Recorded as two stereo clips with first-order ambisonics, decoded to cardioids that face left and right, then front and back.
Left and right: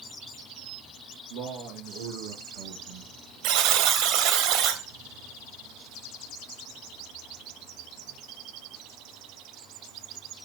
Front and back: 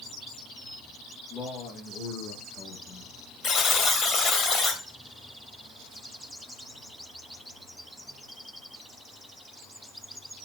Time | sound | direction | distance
1.3 | a man speaking | 60° right | 6.5 m
3.4 | a buzzer | 65° right | 2 m